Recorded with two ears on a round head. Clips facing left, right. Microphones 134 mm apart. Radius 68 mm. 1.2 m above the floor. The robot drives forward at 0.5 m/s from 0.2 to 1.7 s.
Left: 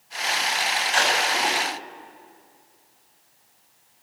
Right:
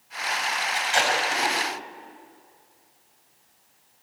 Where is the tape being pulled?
30° right (ahead or behind), 7.5 m.